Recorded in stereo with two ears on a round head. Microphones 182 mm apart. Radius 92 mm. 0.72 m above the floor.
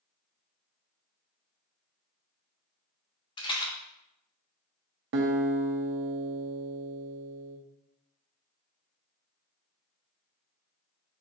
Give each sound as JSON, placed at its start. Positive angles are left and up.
{"t": 3.4, "sound": "a rattle", "side_deg": 20, "distance_m": 0.9}
{"t": 5.1, "sound": "a guitar", "side_deg": -60, "distance_m": 0.6}